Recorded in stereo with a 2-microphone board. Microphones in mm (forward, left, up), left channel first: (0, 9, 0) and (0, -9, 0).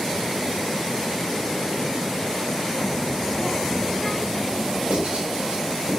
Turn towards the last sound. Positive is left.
turn(degrees=-80)